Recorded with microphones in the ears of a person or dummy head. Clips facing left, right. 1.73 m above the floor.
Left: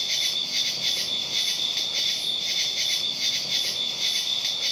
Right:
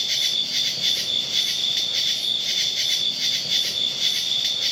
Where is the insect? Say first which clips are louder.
Right 2 dB; 15° right (ahead or behind), 0.8 m.